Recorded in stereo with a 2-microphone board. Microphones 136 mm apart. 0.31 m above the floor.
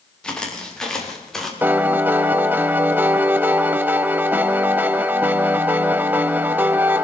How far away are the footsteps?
About 5.5 m.